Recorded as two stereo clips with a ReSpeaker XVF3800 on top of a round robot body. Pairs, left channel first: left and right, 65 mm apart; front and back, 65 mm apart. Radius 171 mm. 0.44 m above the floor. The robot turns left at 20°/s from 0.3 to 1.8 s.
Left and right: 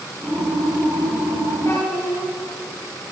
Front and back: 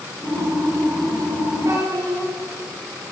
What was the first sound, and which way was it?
A child speaking, 140° left.